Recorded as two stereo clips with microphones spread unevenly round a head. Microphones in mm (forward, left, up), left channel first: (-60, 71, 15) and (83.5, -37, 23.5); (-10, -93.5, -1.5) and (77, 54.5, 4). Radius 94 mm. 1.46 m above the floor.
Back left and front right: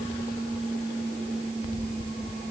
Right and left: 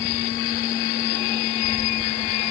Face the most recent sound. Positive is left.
No sound to turn to.